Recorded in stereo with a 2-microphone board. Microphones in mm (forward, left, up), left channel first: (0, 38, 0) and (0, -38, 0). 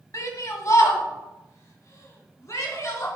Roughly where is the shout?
Left.